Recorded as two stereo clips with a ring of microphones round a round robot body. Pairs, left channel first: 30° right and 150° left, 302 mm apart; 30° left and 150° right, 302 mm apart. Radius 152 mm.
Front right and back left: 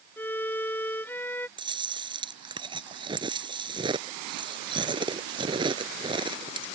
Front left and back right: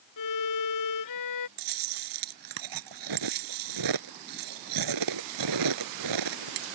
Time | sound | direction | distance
0.2 | a violin | 55° left | ?
1.6 | chewing | 135° right | ?